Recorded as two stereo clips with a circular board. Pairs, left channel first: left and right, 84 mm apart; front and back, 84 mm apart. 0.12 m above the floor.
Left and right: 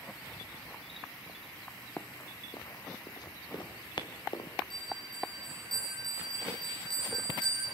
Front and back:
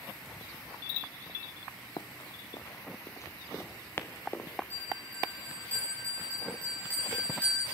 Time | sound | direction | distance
2.0 | running footsteps | 25° left | 0.6 m
4.7 | a bell | 70° left | 7.5 m